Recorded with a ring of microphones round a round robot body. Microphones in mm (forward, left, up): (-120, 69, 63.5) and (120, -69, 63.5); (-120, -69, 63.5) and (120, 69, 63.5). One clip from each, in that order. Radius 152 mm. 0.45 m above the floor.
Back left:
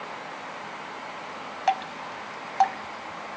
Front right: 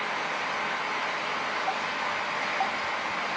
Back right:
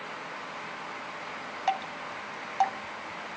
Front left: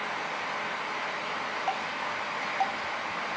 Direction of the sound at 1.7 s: 140° left.